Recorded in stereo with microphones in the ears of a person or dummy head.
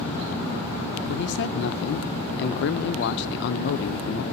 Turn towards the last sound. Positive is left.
turn(degrees=60)  # may be behind; listen again after turning